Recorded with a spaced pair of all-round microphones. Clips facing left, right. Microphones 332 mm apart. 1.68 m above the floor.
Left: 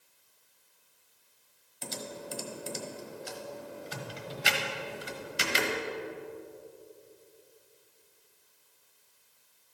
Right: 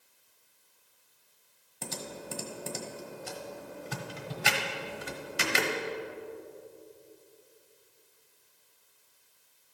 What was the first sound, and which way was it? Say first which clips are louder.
Typing on a keyboard: even; 60° right (ahead or behind).